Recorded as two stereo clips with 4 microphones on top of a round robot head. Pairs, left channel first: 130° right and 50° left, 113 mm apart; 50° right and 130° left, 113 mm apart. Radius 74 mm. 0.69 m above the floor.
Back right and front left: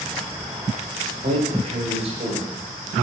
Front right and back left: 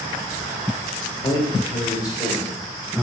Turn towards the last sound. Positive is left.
turn(degrees=10)